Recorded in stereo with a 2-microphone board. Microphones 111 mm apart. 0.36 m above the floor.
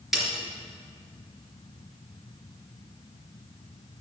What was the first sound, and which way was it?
A snare drum, centre (ahead or behind).